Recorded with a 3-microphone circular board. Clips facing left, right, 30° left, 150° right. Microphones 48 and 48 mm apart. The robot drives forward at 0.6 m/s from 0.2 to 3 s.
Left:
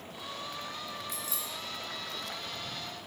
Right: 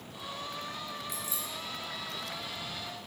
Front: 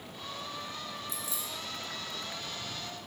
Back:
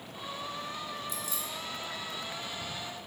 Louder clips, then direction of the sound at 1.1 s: Even, back 2 dB; 30° right.